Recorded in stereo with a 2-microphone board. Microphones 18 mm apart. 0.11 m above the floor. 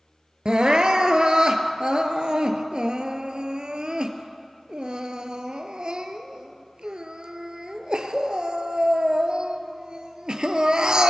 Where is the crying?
55° right (ahead or behind), 0.8 m.